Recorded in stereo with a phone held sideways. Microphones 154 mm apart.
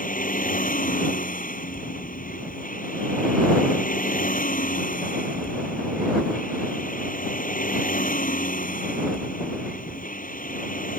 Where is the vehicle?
60° left (ahead or behind).